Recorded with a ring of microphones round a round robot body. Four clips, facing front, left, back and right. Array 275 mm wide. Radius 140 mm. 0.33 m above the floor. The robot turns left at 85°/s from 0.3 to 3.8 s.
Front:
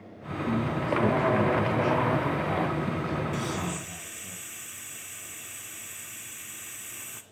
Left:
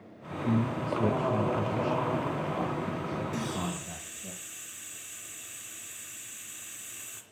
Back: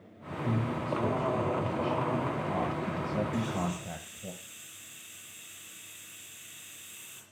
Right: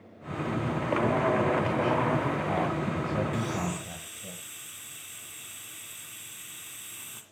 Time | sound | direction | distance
0.5 | a man speaking | 120° left | 2.5 m
3.3 | a hiss | 10° left | 2 m